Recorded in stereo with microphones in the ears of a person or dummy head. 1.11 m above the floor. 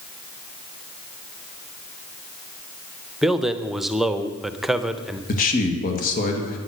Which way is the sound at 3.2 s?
Centre (ahead or behind).